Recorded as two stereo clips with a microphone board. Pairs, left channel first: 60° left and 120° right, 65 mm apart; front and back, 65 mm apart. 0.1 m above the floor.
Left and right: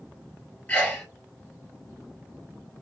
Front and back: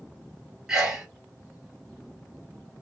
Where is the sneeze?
105° left, 1.9 m.